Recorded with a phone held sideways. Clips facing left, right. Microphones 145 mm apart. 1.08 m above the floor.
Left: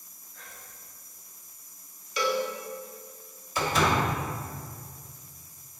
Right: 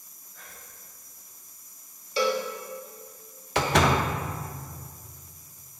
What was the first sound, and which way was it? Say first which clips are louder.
Whispering: even; 5° right (ahead or behind).